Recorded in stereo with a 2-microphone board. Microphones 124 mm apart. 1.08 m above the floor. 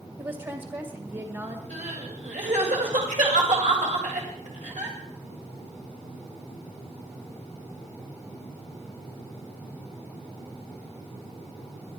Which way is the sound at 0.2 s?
35° right (ahead or behind).